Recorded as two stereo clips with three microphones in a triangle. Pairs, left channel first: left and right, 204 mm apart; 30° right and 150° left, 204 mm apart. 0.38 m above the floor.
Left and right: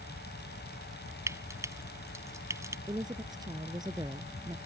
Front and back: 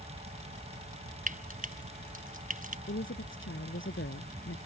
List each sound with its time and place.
1.3 s frying: 165° right
2.9 s a woman speaking: 20° right